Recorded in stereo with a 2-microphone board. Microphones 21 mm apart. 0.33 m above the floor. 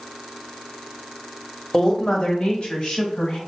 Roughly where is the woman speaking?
Left.